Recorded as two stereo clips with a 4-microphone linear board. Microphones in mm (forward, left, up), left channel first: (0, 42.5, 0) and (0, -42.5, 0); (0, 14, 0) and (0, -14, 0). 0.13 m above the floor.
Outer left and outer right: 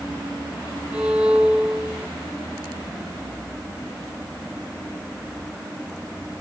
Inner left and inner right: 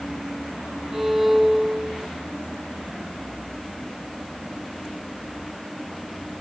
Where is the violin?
20° right (ahead or behind), 1.8 m.